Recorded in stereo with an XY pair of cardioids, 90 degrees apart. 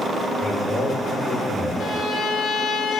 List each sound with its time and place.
0.4 s a man speaking: 35° left, 5.5 m
1.8 s a violin: 65° left, 1.5 m